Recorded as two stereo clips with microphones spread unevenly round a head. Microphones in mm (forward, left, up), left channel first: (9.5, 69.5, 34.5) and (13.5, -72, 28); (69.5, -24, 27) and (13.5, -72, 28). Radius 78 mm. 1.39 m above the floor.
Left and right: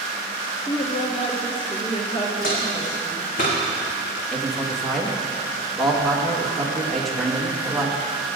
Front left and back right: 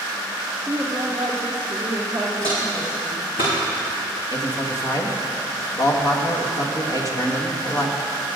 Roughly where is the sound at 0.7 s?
Behind left.